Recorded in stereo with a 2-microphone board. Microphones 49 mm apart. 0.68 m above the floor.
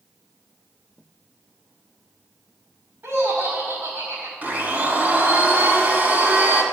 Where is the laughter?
70° right (ahead or behind), 1.3 m.